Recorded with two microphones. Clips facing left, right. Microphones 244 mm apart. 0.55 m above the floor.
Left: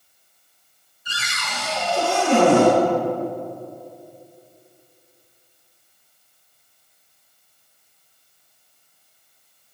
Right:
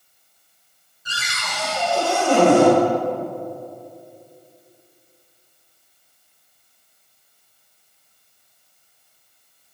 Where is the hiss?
No hiss in this recording.